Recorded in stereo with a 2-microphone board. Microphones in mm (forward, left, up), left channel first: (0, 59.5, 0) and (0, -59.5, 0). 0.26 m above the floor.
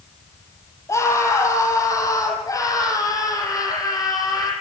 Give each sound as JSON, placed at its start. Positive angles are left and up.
{"t": 0.9, "sound": "a scream", "side_deg": 25, "distance_m": 7.5}